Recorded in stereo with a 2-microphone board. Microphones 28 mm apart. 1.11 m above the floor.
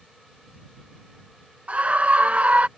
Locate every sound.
1.7 s a scream: 45° right (ahead or behind)